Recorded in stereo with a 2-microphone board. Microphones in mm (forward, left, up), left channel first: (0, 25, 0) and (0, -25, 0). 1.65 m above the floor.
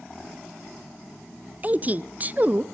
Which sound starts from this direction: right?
A woman speaking, at 1.6 s.